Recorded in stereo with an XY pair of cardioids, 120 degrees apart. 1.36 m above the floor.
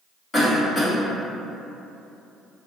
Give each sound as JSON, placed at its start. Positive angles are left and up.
{"t": 0.3, "sound": "a cough", "azimuth_deg": 25, "distance_m": 1.4}